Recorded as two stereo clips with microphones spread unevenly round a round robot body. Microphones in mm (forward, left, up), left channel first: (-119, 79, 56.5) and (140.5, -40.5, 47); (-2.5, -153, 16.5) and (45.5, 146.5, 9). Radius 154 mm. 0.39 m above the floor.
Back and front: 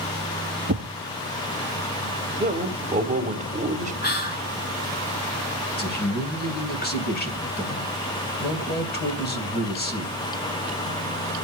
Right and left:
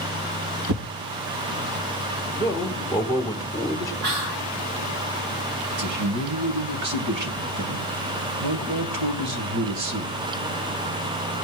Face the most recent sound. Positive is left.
turn(degrees=100)